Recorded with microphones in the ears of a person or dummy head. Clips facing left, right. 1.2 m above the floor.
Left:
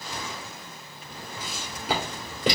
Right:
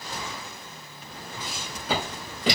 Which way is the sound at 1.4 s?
5° left (ahead or behind).